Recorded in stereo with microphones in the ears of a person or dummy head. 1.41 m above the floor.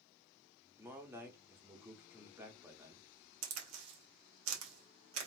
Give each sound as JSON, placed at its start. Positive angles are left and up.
{"t": 0.8, "sound": "a man speaking", "side_deg": -10, "distance_m": 0.8}
{"t": 3.4, "sound": "a crack", "side_deg": -80, "distance_m": 1.1}